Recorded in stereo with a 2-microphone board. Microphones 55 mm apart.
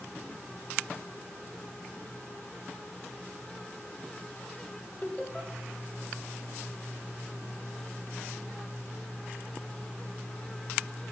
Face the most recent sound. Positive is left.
turn(degrees=25)  # may be behind; listen again after turning